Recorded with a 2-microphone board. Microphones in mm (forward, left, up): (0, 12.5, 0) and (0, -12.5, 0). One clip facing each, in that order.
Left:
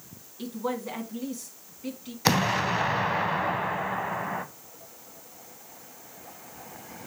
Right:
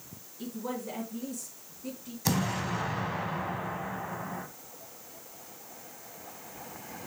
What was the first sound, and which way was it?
A woman speaking, 45° left (ahead or behind).